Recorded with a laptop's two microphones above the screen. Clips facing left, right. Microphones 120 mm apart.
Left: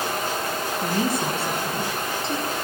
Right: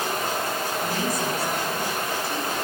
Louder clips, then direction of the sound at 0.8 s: Left 5 dB; 30° left (ahead or behind).